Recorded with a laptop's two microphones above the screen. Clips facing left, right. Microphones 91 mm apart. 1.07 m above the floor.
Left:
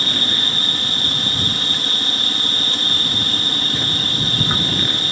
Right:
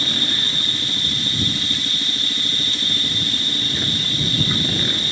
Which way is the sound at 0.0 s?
55° left (ahead or behind).